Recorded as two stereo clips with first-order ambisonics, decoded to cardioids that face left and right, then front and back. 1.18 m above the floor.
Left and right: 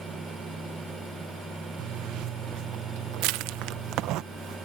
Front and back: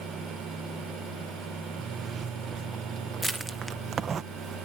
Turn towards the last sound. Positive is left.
turn(degrees=-95)